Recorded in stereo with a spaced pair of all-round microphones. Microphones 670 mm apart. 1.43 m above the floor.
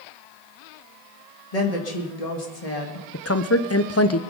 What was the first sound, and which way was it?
A woman speaking, 65° left (ahead or behind).